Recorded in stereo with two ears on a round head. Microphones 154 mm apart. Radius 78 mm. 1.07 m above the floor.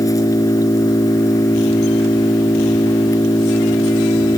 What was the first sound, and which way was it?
An engine running, 20° left (ahead or behind).